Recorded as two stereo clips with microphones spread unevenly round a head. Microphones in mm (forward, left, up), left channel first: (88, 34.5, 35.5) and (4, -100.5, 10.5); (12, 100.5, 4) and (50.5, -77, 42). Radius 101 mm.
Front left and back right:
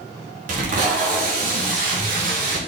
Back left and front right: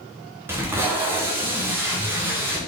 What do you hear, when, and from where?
0.5 s tape being pulled: 160° right, 0.7 m